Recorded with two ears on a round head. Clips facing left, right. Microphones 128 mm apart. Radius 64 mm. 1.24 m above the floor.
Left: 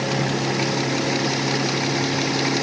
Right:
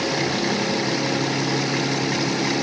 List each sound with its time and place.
Only background noise.